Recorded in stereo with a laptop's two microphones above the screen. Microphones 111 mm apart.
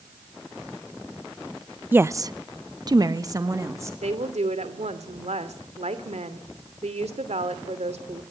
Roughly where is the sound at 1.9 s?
Centre.